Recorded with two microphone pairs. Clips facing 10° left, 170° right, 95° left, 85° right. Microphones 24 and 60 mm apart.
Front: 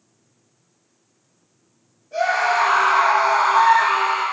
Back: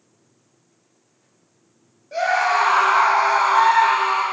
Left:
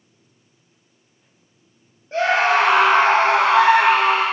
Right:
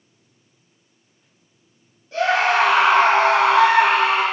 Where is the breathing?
I don't hear breathing.